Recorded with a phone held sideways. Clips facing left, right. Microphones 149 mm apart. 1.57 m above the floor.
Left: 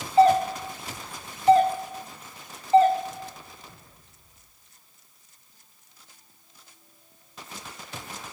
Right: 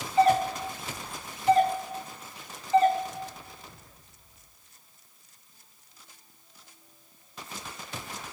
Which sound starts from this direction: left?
A doorbell, at 0.2 s.